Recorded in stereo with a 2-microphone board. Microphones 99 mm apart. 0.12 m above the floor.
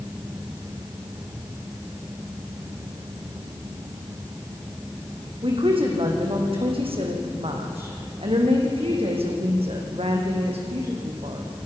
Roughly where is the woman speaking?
Right.